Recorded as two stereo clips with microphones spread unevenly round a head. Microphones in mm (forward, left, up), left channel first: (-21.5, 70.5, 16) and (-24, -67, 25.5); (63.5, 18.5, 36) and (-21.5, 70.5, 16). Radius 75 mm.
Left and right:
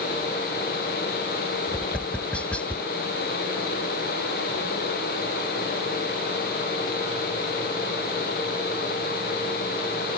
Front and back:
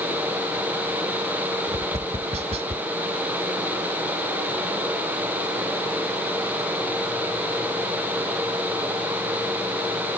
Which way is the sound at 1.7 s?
170° left.